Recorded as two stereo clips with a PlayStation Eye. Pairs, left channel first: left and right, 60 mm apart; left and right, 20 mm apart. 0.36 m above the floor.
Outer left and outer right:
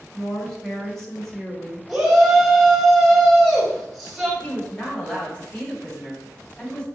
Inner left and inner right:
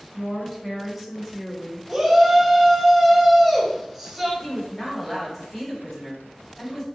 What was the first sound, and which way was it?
A woman speaking, 5° left (ahead or behind).